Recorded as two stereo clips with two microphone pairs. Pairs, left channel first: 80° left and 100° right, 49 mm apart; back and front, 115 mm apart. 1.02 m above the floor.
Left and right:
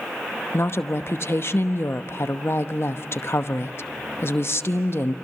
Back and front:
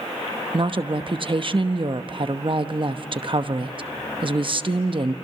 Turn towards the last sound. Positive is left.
turn(degrees=40)